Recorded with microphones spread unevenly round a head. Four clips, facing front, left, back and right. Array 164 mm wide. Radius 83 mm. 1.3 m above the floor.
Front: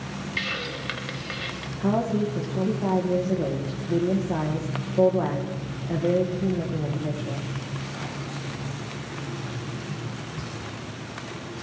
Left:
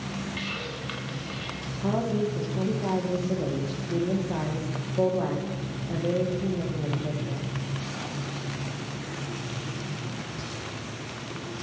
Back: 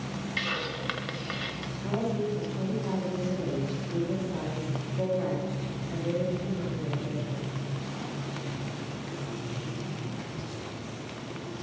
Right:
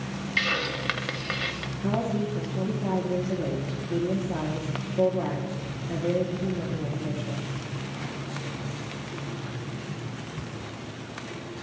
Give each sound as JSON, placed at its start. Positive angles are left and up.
{"t": 0.4, "sound": "a hiss", "azimuth_deg": -80, "distance_m": 1.0}
{"t": 1.8, "sound": "a woman speaking", "azimuth_deg": 10, "distance_m": 1.5}